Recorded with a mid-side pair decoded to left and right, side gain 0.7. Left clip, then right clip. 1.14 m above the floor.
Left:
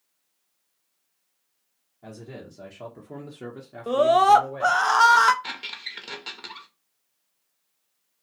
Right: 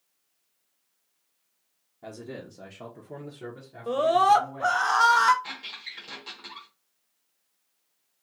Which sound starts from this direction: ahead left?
A squeak, at 5.4 s.